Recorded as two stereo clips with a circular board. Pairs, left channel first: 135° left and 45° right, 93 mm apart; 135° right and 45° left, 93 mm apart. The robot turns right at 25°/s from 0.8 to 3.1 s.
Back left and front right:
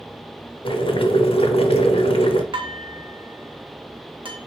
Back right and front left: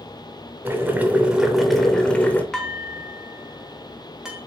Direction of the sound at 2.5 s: 55° right.